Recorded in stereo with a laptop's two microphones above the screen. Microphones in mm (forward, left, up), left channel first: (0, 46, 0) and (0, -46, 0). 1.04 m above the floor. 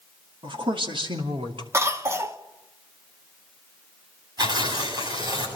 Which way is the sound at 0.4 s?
70° right (ahead or behind).